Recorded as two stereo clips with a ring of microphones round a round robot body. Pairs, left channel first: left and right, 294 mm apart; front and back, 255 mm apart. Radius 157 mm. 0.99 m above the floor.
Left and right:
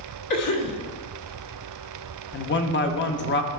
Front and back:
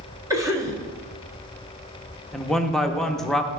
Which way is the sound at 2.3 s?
85° left.